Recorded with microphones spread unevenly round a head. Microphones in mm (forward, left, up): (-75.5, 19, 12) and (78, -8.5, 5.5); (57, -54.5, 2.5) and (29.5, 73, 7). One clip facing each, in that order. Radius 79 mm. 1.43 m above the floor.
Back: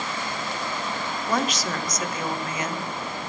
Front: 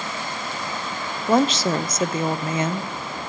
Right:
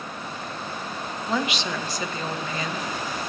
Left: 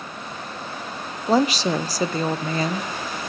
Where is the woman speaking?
50° left, 0.7 m.